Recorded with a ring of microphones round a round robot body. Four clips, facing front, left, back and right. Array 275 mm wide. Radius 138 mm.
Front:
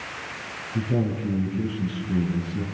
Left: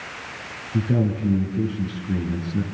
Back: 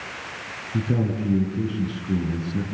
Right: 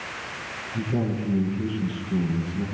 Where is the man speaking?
135° left, 8.5 m.